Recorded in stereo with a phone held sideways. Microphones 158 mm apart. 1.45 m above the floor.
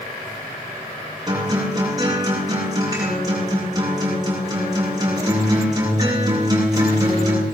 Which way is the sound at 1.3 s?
25° right (ahead or behind).